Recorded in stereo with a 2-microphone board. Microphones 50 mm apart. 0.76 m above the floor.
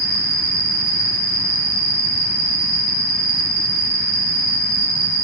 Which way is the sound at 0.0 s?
10° right (ahead or behind).